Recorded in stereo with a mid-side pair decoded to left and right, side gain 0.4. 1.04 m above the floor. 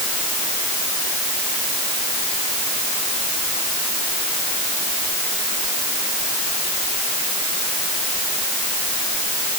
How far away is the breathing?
I don't hear breathing.